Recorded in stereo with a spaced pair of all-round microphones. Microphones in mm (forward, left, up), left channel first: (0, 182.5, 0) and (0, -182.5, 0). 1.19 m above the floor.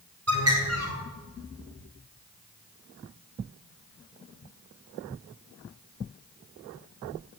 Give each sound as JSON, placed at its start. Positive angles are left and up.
{"t": 0.3, "sound": "a bird", "side_deg": -40, "distance_m": 4.0}